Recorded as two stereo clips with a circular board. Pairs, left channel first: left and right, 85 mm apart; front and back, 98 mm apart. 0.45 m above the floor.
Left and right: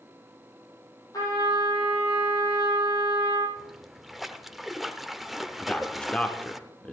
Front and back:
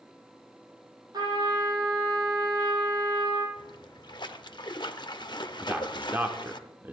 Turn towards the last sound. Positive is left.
turn(degrees=145)